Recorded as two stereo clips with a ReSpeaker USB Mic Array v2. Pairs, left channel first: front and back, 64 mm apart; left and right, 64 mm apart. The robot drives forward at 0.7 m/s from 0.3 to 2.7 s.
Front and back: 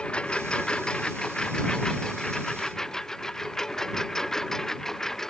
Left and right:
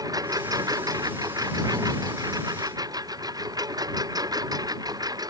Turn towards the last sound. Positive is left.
turn(degrees=-80)